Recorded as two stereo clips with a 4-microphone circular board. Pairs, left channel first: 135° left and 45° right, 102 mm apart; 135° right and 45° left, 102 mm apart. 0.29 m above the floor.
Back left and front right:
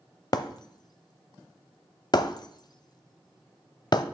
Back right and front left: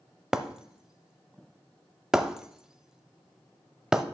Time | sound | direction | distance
0.3 | breaking glass | 125° left | 0.5 m